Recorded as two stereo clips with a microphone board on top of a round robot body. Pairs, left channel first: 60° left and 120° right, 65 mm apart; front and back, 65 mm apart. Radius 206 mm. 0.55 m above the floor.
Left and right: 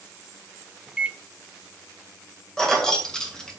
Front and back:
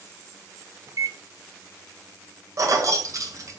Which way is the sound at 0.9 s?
165° left.